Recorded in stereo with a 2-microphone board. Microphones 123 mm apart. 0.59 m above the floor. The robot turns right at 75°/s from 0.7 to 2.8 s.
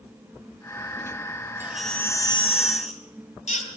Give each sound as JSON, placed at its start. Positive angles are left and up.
{"t": 1.6, "sound": "a baby crying", "azimuth_deg": -15, "distance_m": 3.0}